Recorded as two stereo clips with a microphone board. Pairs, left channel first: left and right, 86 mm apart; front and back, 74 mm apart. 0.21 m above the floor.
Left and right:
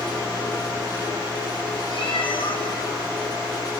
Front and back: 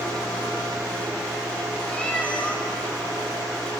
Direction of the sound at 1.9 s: 70° left.